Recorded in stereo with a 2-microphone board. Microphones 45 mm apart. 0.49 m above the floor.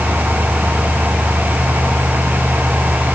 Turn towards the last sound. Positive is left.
No sound to turn to.